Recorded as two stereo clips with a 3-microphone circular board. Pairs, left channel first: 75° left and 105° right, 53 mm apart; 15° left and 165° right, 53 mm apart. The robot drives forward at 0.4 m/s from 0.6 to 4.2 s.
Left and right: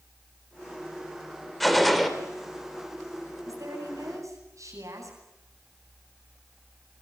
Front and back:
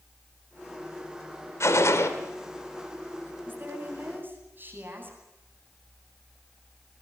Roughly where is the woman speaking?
Right.